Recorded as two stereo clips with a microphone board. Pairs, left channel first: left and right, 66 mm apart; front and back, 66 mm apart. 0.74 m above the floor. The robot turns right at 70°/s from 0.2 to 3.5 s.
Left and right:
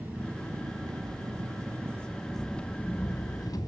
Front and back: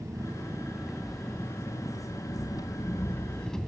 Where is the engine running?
150° right, 1.8 m; by 3.7 s 80° left, 1.8 m.